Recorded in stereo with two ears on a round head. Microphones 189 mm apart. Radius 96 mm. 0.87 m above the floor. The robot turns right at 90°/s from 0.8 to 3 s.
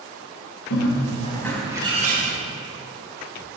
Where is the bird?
110° left, 2.5 m; by 2.4 s 110° right, 2.5 m.